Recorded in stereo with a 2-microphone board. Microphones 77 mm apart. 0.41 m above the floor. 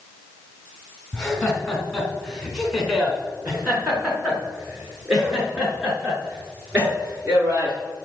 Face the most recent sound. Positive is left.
turn(degrees=-15)  # may be behind; listen again after turning